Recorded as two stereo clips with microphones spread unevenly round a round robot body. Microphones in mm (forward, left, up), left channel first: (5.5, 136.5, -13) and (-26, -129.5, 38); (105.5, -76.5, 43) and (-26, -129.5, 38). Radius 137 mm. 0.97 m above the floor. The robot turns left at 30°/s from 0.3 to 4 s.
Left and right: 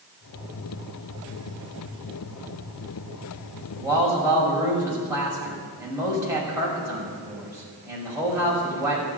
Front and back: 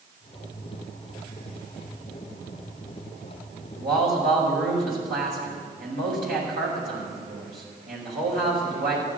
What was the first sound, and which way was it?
A man speaking, 170° right.